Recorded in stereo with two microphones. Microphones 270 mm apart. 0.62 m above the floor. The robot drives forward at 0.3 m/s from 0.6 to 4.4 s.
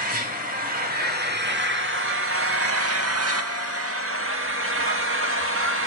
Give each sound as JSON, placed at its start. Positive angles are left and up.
{"t": 0.0, "sound": "an engine running", "side_deg": -30, "distance_m": 1.0}